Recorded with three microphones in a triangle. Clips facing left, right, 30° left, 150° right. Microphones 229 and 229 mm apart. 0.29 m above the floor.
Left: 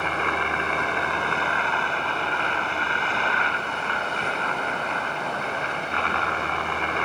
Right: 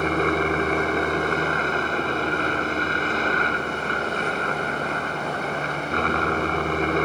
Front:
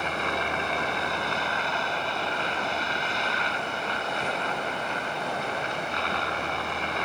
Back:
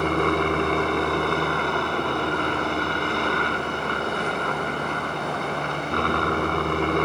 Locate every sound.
0.0 s a helicopter: 130° right